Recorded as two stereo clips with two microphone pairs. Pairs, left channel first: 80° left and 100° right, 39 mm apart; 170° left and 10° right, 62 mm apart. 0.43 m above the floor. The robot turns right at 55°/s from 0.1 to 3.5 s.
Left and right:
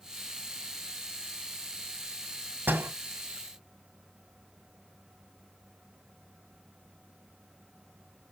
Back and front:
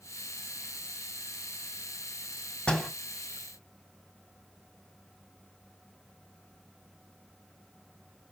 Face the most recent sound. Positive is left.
turn(degrees=-75)